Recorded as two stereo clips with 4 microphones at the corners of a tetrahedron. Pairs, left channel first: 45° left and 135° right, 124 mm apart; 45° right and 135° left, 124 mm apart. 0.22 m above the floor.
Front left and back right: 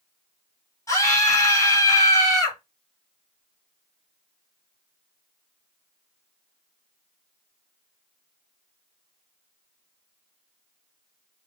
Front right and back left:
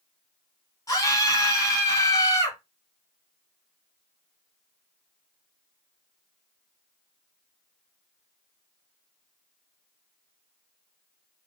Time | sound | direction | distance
0.9 | a scream | straight ahead | 1.9 m